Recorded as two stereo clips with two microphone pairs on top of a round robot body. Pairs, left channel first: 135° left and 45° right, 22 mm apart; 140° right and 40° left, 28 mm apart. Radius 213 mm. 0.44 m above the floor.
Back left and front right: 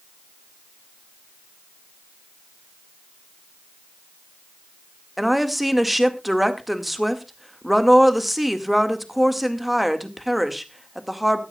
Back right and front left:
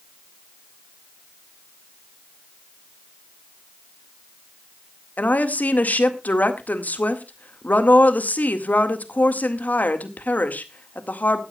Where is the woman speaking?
125° right, 2 m.